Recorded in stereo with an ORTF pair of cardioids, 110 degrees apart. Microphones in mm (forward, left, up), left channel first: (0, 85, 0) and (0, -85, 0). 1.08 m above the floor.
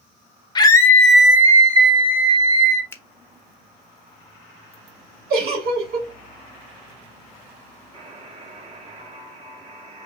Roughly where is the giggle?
Ahead right.